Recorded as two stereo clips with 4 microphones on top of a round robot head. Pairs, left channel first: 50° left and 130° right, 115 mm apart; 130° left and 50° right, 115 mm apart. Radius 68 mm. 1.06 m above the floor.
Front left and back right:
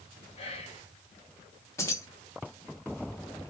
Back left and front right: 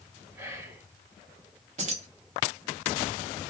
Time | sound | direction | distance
0.4 | whispering | 20° left | 1.3 m
1.8 | keys jangling | 20° right | 1.1 m